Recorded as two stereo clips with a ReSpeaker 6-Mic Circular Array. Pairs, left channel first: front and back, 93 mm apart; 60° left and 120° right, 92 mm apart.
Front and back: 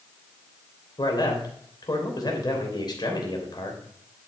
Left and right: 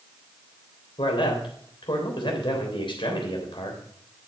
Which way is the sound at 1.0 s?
35° left.